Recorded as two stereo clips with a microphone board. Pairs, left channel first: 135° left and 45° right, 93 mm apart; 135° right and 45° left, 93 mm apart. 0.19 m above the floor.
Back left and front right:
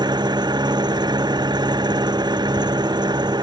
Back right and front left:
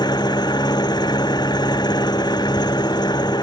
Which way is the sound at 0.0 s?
90° right.